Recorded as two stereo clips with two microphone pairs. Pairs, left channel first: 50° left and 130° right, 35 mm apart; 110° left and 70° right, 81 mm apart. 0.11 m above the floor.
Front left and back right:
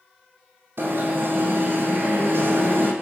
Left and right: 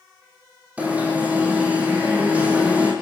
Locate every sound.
0.8 s an alarm: 145° right, 7 m